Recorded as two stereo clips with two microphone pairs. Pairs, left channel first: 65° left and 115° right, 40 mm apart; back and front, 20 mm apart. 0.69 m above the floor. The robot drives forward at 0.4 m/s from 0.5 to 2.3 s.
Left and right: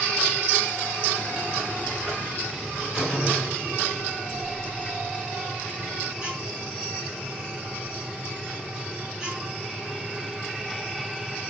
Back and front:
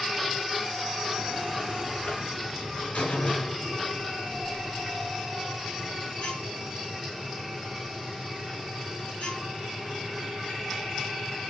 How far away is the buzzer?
About 3.5 m.